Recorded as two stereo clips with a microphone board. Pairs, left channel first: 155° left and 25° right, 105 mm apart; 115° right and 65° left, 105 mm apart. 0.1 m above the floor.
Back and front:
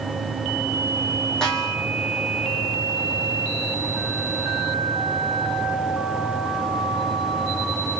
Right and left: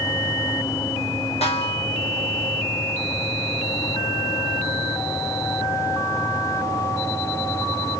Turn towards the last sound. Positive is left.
turn(degrees=-120)